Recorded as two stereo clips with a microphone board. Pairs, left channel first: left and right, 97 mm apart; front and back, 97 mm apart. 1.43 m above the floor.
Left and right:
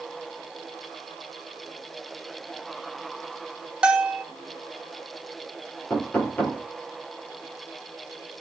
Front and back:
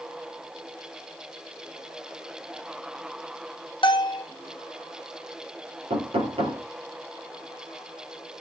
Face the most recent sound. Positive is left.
turn(degrees=165)